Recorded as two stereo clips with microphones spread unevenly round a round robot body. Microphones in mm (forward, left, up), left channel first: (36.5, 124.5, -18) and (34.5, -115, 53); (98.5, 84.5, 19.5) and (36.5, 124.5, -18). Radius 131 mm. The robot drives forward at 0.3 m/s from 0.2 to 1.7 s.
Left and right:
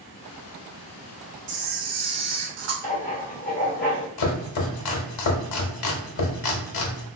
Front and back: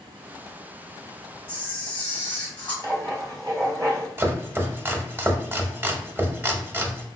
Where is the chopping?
80° left, 0.8 m.